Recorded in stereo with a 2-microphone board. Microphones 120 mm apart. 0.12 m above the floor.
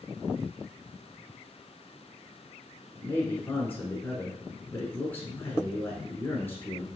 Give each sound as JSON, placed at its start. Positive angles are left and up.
{"t": 2.9, "sound": "a man speaking", "side_deg": 20, "distance_m": 1.1}